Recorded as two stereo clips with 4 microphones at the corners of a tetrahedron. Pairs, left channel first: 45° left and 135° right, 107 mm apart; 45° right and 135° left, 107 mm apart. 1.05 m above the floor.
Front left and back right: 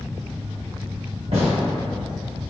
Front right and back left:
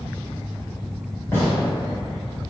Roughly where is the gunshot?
Right.